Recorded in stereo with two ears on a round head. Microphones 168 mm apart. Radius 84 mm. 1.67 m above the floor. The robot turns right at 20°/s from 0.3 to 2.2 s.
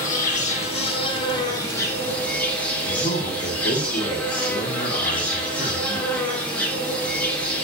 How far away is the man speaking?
About 1.2 m.